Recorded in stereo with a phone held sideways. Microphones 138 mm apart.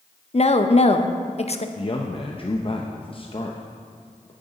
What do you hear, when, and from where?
0.3 s a woman speaking: 50° left (ahead or behind), 0.6 m
1.8 s a man speaking: 40° left (ahead or behind), 0.6 m